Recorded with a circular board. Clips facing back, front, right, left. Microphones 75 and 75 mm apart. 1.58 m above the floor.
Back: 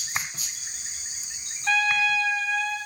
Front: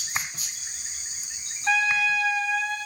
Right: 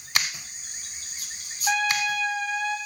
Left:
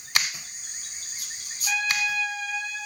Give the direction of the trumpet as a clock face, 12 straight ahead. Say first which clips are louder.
Even, right 3 dB; 2 o'clock.